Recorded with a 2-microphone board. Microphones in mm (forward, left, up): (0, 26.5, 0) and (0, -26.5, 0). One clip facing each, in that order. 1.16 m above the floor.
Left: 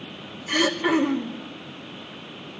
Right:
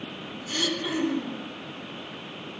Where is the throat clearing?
55° left (ahead or behind), 3 m.